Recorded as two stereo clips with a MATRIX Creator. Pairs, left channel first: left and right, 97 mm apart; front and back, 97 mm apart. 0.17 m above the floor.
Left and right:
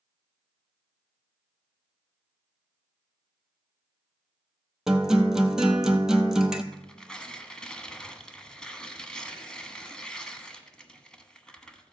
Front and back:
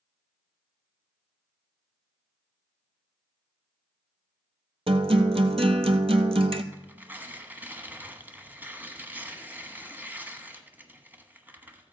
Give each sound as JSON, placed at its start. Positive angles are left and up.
{"t": 4.9, "sound": "a guitar", "azimuth_deg": -175, "distance_m": 0.9}
{"t": 6.7, "sound": "tearing paper", "azimuth_deg": 155, "distance_m": 1.1}